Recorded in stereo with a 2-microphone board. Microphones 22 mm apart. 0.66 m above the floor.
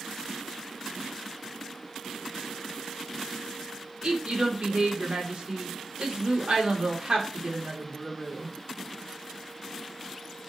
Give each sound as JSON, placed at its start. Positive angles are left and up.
{"t": 4.0, "sound": "a woman speaking", "side_deg": -55, "distance_m": 1.4}